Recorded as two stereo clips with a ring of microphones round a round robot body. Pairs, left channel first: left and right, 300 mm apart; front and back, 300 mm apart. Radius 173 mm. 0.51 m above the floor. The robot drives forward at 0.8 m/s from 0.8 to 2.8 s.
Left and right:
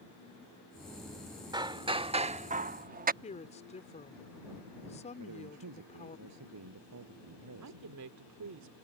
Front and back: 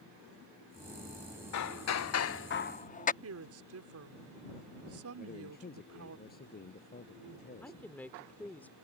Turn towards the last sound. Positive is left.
turn(degrees=-85)